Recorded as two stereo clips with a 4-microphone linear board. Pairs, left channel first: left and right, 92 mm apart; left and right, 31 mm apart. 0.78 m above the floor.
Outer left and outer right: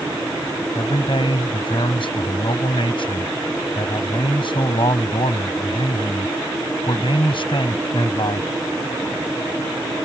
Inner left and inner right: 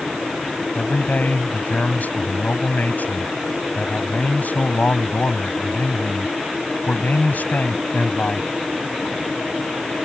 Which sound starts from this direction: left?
A man speaking, at 0.8 s.